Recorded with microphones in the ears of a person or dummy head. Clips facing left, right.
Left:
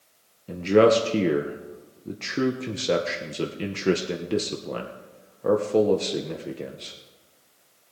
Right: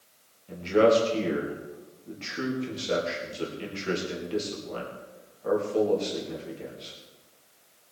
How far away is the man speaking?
About 1.0 m.